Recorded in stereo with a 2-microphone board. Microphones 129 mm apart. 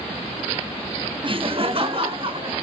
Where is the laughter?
40° right (ahead or behind), 0.7 m; by 2.5 s 45° right (ahead or behind), 2.5 m.